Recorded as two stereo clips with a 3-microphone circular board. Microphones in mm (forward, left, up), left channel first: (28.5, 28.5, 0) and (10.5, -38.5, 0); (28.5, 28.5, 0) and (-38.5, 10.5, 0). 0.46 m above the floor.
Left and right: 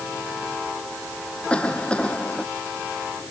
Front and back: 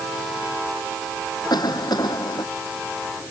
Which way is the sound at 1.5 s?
Straight ahead.